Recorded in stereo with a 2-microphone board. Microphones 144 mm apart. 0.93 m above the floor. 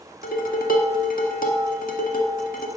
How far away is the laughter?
No laughter in this recording.